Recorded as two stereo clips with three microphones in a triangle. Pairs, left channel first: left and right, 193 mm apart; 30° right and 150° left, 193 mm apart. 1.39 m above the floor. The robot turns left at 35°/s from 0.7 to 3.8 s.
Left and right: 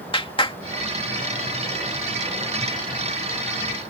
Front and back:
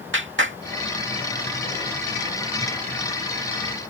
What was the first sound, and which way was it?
A clap, 150° left.